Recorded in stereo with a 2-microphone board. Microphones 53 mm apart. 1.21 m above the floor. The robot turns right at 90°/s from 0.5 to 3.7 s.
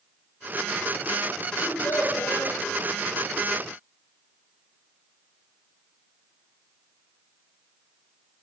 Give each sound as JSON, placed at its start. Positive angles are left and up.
{"t": 1.6, "sound": "a child speaking", "azimuth_deg": 35, "distance_m": 4.5}